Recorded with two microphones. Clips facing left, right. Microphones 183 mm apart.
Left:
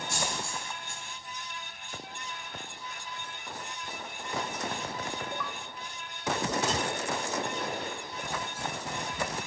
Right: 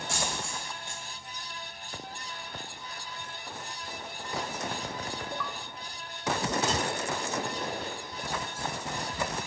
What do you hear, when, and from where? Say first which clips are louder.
0.1 s a dropped coin: even; 75° right (ahead or behind), 3 m